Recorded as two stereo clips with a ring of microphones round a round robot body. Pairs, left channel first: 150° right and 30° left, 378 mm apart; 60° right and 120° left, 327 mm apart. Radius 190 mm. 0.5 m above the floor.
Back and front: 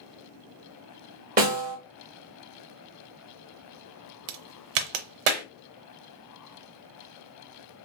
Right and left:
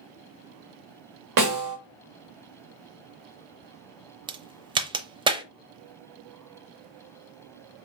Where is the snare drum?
100° left, 1.6 m.